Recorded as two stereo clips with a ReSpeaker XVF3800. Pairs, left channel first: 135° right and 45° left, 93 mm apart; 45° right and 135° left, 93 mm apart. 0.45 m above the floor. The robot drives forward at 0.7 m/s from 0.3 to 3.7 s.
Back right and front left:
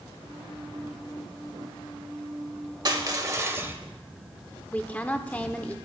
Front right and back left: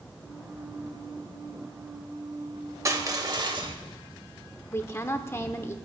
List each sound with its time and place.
2.9 s crushing: 80° left, 1.3 m; by 3.8 s 110° left, 1.3 m
4.7 s a woman speaking: 75° right, 0.8 m